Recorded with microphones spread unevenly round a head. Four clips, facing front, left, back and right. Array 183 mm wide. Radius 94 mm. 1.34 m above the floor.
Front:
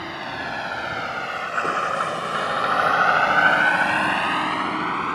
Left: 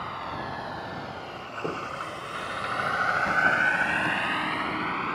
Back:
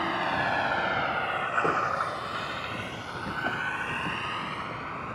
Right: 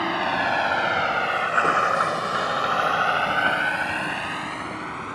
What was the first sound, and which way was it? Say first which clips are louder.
A vehicle: right 10 dB, back 3 dB; 100° right.